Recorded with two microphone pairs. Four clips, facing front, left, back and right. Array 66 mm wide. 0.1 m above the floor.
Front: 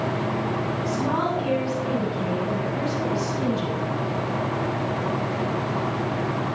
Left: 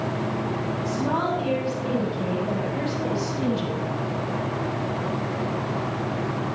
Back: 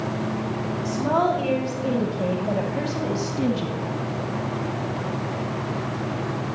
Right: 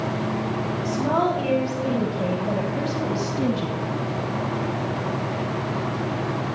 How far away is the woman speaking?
About 5 m.